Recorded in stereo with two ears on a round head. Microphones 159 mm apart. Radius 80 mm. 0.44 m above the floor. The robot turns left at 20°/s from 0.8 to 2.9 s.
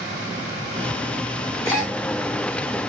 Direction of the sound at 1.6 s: 45° left (ahead or behind).